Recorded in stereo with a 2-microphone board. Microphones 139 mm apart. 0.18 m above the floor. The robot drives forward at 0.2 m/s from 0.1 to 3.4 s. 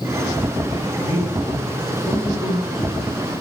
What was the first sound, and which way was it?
A man speaking, 30° right (ahead or behind).